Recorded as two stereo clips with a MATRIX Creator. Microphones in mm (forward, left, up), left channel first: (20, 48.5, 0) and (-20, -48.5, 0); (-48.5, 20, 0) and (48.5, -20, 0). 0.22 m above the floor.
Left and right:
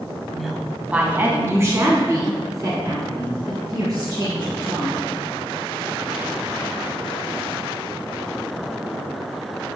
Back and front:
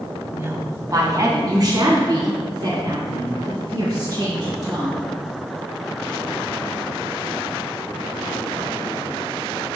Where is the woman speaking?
10° right, 1.0 m; by 5.0 s 70° right, 4 m.